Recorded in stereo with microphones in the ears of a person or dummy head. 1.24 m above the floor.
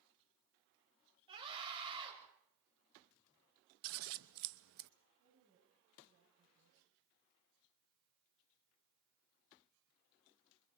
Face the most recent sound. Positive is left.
turn(degrees=-70)  # may be behind; listen again after turning